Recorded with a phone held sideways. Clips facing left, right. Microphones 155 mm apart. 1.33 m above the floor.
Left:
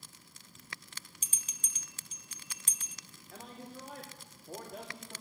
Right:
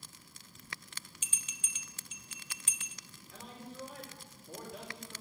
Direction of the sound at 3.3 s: 45° left (ahead or behind).